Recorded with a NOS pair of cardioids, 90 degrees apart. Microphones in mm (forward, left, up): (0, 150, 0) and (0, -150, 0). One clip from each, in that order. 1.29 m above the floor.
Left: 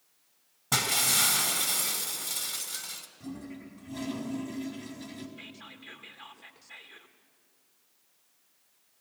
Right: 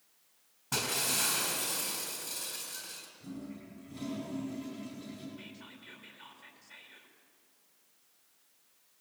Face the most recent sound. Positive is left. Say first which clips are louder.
# left 4 dB
turn(degrees=60)